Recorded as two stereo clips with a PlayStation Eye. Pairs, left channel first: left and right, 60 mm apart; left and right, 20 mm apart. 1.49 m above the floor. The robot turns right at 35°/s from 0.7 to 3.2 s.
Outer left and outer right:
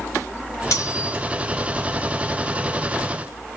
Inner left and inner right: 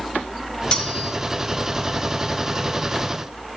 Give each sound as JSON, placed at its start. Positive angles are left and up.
{"t": 0.7, "sound": "cutlery clinking", "side_deg": 60, "distance_m": 3.0}